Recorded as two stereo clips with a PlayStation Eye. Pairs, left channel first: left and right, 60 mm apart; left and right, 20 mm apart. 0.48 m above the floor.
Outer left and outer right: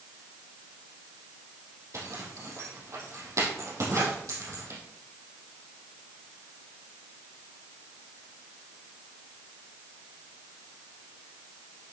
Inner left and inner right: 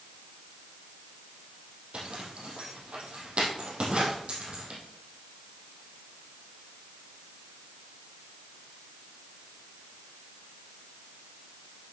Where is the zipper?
60° right (ahead or behind), 3.5 m.